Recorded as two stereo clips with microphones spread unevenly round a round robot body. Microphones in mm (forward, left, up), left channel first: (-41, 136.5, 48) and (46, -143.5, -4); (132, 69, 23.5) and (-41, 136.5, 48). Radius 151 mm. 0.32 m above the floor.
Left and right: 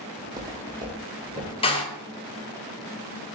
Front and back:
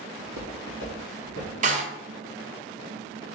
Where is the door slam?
Straight behind, 0.6 m.